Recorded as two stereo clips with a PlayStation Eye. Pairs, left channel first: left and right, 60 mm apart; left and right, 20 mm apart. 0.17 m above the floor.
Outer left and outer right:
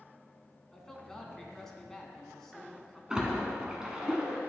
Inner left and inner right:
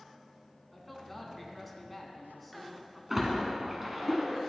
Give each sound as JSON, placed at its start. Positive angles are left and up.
{"t": 0.7, "sound": "a man speaking", "side_deg": 5, "distance_m": 1.2}
{"t": 3.1, "sound": "a splash", "side_deg": -15, "distance_m": 1.4}